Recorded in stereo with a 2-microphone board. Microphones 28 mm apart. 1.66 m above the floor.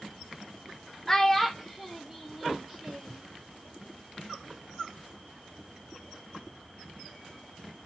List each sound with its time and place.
1.1 s a child speaking: 20° left (ahead or behind), 0.5 m; by 3.2 s 10° right (ahead or behind), 1.6 m